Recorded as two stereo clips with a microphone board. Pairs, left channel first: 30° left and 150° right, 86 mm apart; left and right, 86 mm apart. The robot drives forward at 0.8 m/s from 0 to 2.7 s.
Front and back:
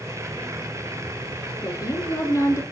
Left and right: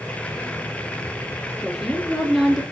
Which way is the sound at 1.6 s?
5° right.